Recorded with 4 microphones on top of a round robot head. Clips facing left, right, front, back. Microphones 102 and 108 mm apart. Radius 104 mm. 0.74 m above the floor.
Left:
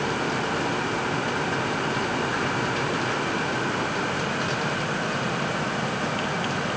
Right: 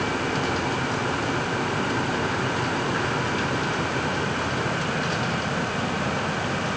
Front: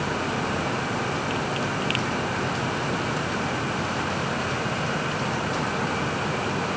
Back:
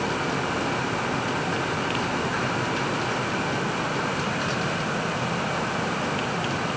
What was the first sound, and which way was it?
Only background noise.